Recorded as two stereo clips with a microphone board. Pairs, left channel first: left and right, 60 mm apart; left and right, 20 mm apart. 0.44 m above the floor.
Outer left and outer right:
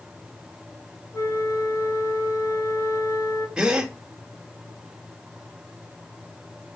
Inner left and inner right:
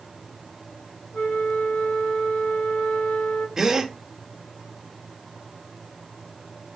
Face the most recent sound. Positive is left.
turn(degrees=-15)  # may be behind; listen again after turning